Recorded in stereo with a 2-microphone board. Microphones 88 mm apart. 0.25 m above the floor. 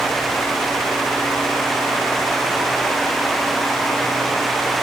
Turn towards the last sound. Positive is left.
No sound to turn to.